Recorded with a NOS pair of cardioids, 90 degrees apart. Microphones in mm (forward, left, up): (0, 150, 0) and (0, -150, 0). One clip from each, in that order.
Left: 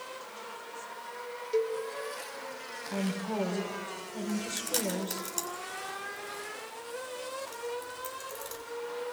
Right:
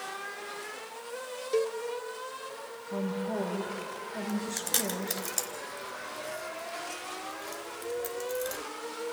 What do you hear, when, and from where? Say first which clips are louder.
1.5 s a cowbell: right 1 dB; 20° right, 1.2 m
2.9 s a woman speaking: right 2 dB; 30° left, 5 m
4.3 s chewing: even; 25° right, 3 m